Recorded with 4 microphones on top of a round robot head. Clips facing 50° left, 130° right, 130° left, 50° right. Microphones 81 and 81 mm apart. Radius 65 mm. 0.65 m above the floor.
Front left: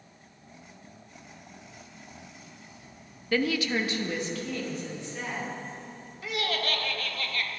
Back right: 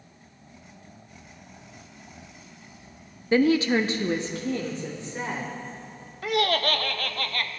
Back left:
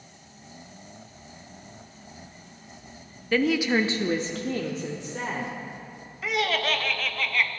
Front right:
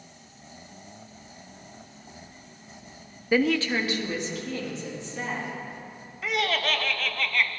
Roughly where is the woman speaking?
Right.